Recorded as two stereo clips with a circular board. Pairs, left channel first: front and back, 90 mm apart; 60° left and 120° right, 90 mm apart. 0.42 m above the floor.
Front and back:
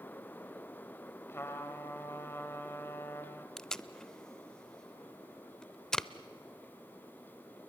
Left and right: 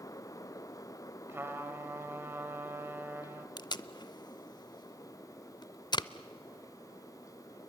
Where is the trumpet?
60° right, 1.9 m.